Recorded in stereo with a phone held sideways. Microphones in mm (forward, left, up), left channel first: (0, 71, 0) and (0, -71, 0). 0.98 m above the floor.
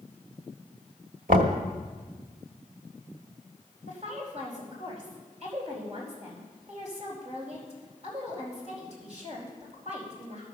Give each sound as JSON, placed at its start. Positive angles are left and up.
{"t": 1.3, "sound": "knocking", "side_deg": -75, "distance_m": 1.4}
{"t": 3.9, "sound": "a woman speaking", "side_deg": -55, "distance_m": 4.5}